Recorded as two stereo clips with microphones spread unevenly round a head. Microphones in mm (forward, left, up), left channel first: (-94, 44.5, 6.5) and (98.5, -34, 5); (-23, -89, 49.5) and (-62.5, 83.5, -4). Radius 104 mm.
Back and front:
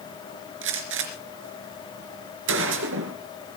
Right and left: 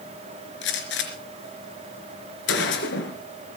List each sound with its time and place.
0.6 s a gunshot: 50° right, 3.5 m